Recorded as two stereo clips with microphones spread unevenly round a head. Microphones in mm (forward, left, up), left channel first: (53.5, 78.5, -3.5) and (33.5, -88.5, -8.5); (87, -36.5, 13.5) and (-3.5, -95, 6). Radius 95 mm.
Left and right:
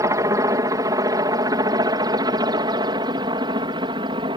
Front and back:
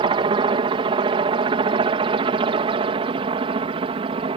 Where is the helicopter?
165° right; by 4.4 s 155° right.